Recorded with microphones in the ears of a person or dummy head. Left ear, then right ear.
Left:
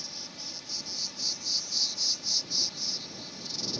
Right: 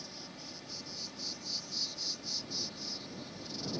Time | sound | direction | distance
0.0 | an insect | 20° left (ahead or behind) | ?